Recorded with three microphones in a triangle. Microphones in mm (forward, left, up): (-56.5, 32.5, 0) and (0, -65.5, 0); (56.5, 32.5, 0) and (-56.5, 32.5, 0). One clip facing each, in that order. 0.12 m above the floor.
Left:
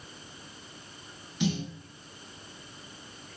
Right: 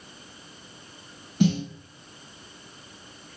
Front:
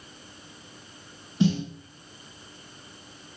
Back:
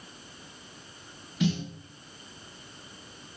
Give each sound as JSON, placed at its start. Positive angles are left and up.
{"t": 1.4, "sound": "a snare drum", "azimuth_deg": -50, "distance_m": 1.2}